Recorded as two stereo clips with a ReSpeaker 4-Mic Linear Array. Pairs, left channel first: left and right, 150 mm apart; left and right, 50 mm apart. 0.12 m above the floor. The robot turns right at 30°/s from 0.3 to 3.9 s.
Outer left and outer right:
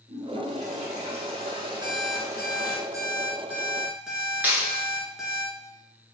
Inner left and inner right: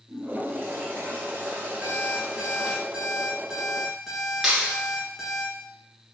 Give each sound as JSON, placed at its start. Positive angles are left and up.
{"t": 0.1, "sound": "a toilet flushing", "azimuth_deg": -90, "distance_m": 1.4}
{"t": 1.8, "sound": "an alarm clock", "azimuth_deg": -70, "distance_m": 1.0}
{"t": 4.4, "sound": "a clap", "side_deg": -10, "distance_m": 1.3}